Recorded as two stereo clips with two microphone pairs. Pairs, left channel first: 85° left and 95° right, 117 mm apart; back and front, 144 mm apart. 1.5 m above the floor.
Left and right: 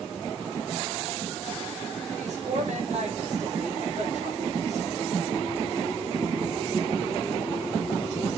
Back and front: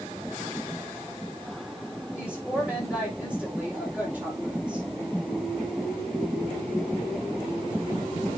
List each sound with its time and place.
2.1 s a woman speaking: 80° right, 5 m